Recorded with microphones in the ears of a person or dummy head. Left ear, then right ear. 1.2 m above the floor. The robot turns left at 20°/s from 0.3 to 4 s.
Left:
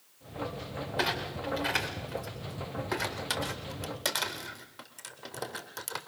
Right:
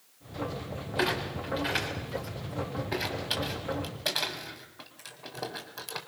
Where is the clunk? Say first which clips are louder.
Right 2 dB; 10° left (ahead or behind), 3 m; by 6.0 s 70° left (ahead or behind), 3 m.